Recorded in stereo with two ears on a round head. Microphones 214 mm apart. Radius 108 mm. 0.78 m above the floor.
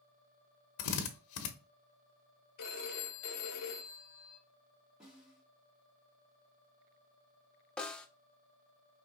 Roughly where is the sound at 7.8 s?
Centre.